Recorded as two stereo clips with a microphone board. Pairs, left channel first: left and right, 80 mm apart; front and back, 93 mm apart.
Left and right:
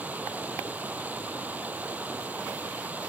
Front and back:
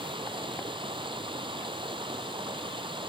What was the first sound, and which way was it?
Running water, 160° right.